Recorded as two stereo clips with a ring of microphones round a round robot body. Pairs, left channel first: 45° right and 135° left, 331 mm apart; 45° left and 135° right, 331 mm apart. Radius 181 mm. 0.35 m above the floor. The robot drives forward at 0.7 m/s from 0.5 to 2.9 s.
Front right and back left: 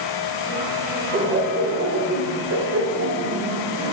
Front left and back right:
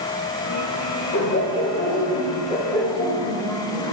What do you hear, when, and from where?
1.1 s laughter: 80° left, 2 m; by 3.9 s 125° left, 2.5 m